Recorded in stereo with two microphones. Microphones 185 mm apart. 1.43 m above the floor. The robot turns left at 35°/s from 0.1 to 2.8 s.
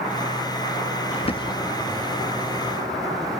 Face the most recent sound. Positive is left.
turn(degrees=-20)